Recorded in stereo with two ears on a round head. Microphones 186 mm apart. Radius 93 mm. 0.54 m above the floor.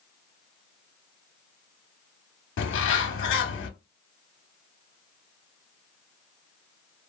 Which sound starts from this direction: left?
A bird, at 2.6 s.